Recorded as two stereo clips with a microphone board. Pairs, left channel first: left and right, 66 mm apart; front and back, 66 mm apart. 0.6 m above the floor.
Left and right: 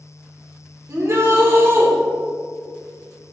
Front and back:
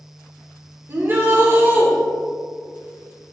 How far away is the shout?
About 2.5 m.